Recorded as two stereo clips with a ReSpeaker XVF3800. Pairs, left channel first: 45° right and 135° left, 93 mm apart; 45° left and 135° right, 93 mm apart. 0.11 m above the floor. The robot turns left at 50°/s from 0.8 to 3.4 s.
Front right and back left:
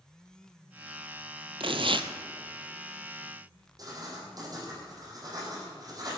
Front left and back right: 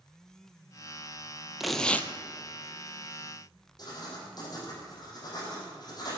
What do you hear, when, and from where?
1.6 s tearing paper: 140° left, 0.9 m; by 2.1 s 115° left, 0.9 m
3.8 s writing: 90° left, 5 m